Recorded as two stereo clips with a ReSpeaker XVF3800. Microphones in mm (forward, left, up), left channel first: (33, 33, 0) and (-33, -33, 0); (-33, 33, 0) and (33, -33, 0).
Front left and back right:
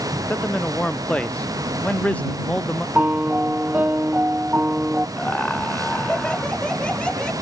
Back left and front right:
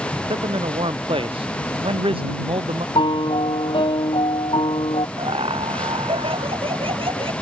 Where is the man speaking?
35° right.